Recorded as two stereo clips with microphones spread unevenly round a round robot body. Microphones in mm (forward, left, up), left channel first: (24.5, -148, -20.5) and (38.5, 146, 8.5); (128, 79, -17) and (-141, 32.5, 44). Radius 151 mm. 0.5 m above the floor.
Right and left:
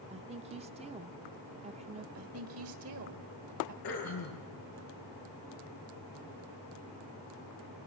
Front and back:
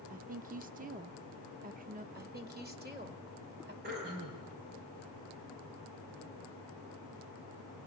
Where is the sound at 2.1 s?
130° left, 2.5 m.